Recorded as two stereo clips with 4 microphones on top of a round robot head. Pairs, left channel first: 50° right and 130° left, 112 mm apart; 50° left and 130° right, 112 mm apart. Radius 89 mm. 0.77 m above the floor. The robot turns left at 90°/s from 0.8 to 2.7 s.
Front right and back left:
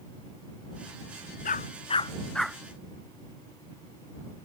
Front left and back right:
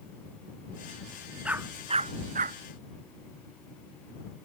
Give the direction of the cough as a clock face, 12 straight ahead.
No cough in this recording.